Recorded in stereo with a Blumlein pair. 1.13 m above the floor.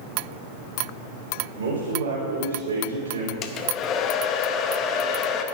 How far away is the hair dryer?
About 0.8 m.